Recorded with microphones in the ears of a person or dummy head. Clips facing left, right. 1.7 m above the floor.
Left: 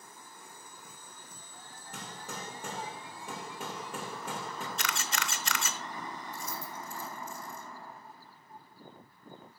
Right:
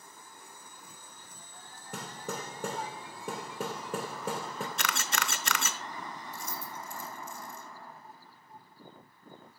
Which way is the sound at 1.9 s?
50° right (ahead or behind).